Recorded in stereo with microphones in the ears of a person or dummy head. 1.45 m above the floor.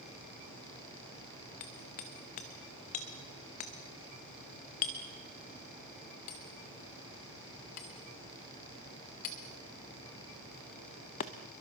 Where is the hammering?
30° left (ahead or behind), 0.8 m.